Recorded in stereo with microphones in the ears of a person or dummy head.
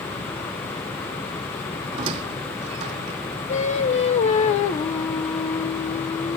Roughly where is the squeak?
Right.